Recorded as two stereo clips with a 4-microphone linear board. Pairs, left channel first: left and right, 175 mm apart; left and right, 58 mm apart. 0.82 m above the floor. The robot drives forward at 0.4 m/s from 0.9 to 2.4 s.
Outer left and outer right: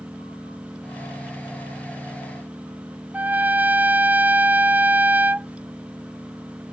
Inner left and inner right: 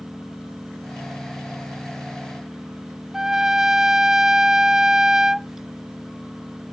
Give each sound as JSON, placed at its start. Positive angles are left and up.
{"t": 0.0, "sound": "an engine running", "side_deg": 0}
{"t": 3.1, "sound": "a trumpet", "side_deg": -10}